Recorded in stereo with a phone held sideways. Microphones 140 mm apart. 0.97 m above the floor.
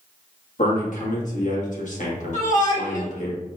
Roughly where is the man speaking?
Left.